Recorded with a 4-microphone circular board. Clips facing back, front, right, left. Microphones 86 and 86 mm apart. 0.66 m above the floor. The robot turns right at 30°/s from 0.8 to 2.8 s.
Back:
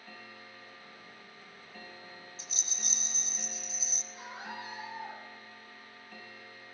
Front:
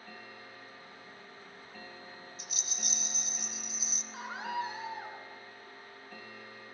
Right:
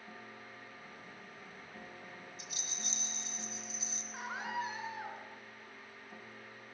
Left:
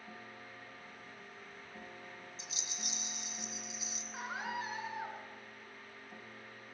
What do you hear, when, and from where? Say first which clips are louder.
2.4 s a rattle: front 1 dB, even; 140° left, 1.4 m; by 4.0 s 155° left, 1.4 m
4.1 s a scream: front 7 dB, right 1 dB; 5° left, 8.5 m